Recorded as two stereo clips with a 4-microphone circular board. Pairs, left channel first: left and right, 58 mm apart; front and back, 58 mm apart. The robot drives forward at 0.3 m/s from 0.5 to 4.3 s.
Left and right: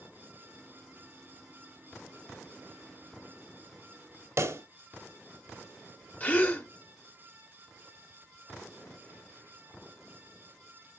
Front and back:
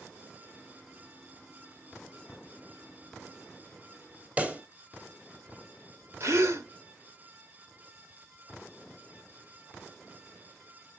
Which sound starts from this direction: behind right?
A pop, at 4.4 s.